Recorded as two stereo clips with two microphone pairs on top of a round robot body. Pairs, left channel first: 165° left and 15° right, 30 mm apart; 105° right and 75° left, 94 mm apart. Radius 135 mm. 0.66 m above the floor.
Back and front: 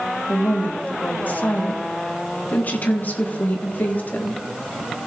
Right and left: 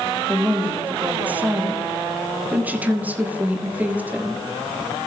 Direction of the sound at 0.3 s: 150° left.